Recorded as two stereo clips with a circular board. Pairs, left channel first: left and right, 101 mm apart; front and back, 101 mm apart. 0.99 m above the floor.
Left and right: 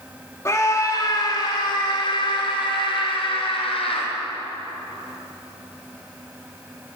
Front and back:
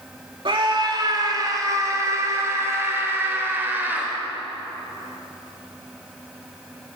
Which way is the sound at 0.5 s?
150° left.